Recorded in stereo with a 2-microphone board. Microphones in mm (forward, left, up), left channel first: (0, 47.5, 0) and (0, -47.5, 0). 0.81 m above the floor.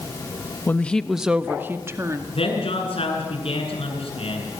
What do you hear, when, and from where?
0.7 s a woman speaking: 20° left (ahead or behind), 1.0 m; by 2.2 s 30° right (ahead or behind), 2.0 m
2.3 s a man speaking: 80° left, 8 m